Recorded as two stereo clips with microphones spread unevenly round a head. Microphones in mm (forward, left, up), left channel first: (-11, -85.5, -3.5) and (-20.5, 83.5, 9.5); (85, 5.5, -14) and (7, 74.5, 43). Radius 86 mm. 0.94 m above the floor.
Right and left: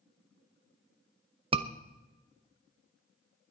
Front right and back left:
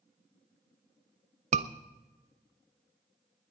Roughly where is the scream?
Behind left.